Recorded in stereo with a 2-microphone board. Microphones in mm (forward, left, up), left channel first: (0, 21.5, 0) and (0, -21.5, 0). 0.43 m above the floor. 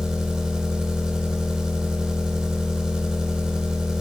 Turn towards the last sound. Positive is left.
turn(degrees=-15)  # may be behind; listen again after turning